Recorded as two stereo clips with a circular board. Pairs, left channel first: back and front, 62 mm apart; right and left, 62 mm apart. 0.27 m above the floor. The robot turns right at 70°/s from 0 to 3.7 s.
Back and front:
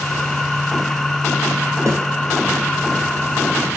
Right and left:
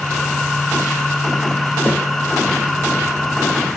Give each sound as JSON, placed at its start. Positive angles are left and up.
{"t": 1.9, "sound": "a snare drum", "azimuth_deg": -35, "distance_m": 1.6}